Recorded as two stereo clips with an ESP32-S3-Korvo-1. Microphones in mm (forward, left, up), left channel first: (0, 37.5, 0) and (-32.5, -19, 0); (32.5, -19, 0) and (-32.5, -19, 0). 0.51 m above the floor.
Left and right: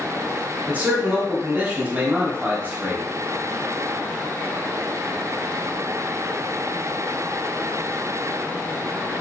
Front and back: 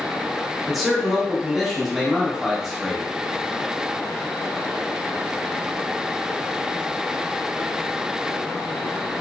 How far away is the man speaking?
About 0.9 m.